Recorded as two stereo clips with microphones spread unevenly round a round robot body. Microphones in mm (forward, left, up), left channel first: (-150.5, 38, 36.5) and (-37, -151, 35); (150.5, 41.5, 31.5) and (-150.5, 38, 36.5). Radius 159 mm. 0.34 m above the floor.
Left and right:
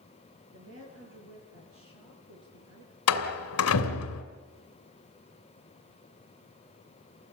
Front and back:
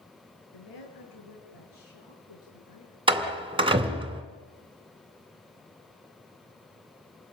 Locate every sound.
0.5 s a woman speaking: 15° right, 8.5 m; by 2.9 s 35° right, 7 m
3.1 s a door slam: 105° left, 2.5 m